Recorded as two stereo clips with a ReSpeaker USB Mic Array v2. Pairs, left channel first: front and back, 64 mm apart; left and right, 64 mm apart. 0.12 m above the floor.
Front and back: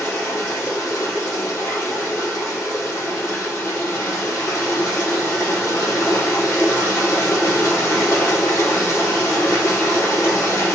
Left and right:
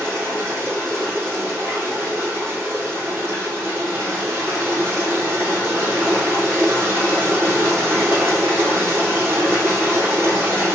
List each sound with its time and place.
0.0 s running water: 40° right, 3 m